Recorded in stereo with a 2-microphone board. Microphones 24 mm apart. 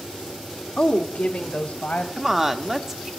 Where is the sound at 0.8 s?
45° left (ahead or behind), 1.4 m; by 2.1 s 60° left (ahead or behind), 3.5 m.